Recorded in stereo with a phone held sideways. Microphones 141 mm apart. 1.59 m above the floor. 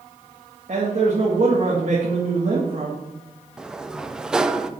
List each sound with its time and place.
0.7 s a man speaking: 60° right (ahead or behind), 2 m
3.6 s a sliding door: 5° right (ahead or behind), 0.6 m